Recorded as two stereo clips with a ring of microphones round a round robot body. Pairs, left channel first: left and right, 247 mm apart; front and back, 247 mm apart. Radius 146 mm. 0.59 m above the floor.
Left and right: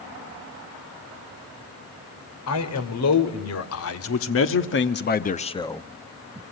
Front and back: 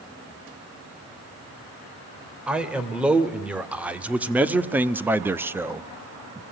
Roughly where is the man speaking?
Left.